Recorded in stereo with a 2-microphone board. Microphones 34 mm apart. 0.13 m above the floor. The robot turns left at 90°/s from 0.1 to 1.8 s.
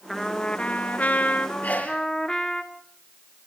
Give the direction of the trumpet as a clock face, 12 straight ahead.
6 o'clock.